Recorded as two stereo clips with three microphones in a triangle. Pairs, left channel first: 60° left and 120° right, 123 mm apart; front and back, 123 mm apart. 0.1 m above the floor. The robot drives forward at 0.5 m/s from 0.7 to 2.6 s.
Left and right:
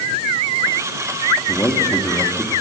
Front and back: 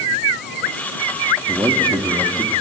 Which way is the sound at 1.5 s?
120° left.